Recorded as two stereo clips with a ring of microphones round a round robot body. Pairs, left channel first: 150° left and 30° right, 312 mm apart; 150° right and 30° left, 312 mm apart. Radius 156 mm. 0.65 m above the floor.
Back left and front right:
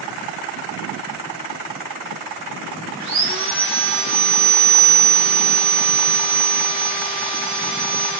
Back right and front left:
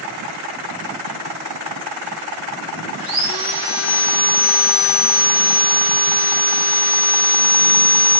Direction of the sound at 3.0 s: 10° right.